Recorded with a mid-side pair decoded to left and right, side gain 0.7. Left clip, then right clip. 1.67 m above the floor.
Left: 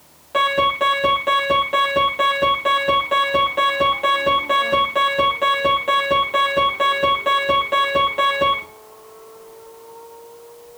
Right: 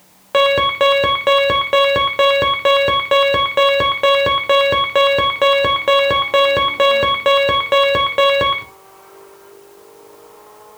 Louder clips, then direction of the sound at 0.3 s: Right 4 dB; 45° right.